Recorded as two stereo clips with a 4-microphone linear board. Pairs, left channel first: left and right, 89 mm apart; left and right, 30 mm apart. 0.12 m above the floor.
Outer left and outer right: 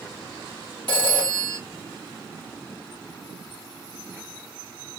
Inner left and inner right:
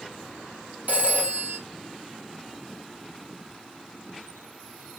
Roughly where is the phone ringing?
Right.